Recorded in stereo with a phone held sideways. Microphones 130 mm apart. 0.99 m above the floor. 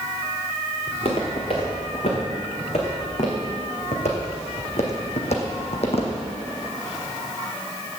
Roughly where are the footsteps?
Left.